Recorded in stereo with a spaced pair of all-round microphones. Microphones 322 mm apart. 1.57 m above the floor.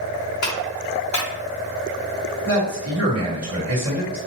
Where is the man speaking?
50° right (ahead or behind), 1.7 m.